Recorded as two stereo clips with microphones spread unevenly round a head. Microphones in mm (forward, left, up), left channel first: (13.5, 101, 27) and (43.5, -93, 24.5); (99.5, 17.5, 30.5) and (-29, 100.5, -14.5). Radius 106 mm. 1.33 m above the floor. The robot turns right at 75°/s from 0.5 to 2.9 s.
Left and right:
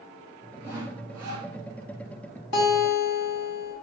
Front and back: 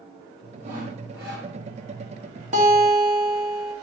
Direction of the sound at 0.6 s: 150° right.